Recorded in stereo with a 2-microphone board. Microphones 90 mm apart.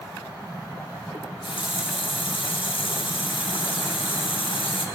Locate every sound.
1.1 s a running tap: 70° left (ahead or behind), 1.1 m